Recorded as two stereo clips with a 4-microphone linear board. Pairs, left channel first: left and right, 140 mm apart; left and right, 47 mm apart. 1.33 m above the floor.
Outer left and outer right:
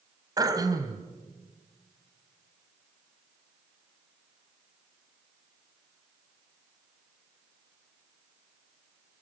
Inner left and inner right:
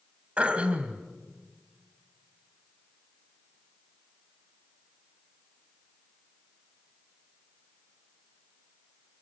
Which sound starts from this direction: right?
Throat clearing, at 0.4 s.